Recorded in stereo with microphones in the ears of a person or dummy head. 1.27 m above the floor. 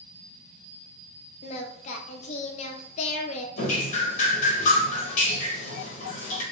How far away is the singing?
About 0.5 m.